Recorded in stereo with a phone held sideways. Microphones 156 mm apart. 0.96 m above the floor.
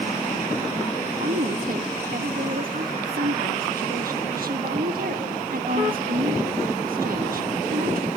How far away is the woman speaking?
About 1.4 m.